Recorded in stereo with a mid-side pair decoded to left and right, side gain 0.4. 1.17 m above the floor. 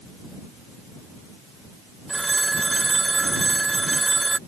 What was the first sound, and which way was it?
A phone ringing, 15° right.